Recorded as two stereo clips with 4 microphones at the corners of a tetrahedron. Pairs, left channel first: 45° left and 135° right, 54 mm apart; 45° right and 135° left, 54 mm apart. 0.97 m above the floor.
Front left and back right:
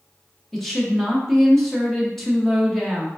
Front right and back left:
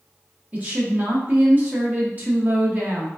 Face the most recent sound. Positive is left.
turn(degrees=125)